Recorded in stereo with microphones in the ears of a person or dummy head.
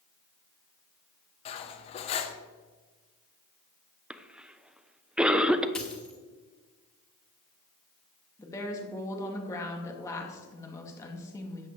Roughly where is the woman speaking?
Centre.